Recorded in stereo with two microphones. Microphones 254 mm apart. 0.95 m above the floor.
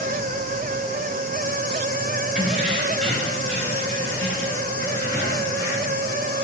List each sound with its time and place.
2.4 s keys jangling: centre (ahead or behind), 3 m; by 6.0 s 10° left (ahead or behind), 7.5 m